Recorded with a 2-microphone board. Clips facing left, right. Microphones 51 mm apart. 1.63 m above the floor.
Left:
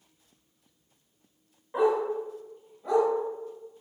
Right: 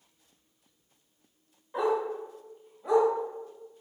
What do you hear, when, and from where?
1.7 s a dog barking: 20° left (ahead or behind), 1.1 m; by 3.1 s 10° right (ahead or behind), 1.1 m